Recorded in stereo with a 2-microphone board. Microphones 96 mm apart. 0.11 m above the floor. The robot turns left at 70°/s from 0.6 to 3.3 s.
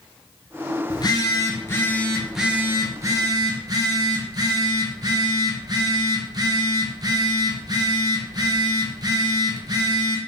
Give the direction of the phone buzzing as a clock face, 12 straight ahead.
9 o'clock.